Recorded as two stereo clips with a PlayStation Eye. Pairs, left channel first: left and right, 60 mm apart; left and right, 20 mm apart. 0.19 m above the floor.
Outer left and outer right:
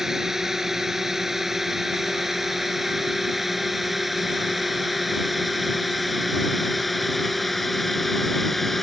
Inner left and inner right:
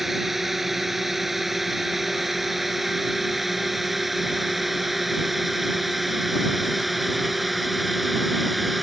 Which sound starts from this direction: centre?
A drone, at 0.0 s.